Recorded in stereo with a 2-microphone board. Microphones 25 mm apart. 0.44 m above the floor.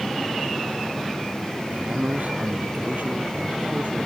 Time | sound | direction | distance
1.7 | a man speaking | 85° right | ?